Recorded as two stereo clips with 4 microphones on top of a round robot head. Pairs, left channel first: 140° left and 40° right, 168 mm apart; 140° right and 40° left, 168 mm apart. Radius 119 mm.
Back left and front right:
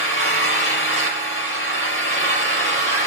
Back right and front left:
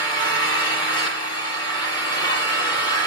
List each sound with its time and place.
0.0 s an engine running: 155° left, 5.5 m